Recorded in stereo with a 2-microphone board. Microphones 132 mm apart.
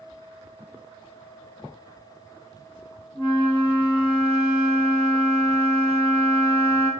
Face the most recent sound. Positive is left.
turn(degrees=-15)  # may be behind; listen again after turning